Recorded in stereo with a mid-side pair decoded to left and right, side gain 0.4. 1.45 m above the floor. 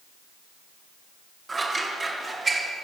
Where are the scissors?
35° right, 1.0 m.